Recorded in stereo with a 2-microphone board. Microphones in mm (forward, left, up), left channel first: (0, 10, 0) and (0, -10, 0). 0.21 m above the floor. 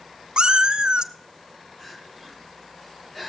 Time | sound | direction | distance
0.4 | a cat meowing | 55° right (ahead or behind) | 0.6 m
1.8 | crying | 20° left (ahead or behind) | 4 m